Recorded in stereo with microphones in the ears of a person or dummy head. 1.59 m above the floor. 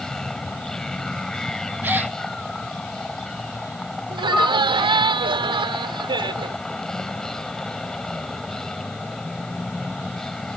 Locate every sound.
0.0 s a vehicle: 5° left (ahead or behind)
1.8 s a gasp: 10° right (ahead or behind)
4.1 s laughter: 25° right (ahead or behind)